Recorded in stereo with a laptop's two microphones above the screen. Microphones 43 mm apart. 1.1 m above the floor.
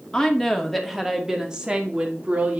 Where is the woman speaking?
15° left (ahead or behind), 2 m; by 2.6 s 35° right (ahead or behind), 2.5 m.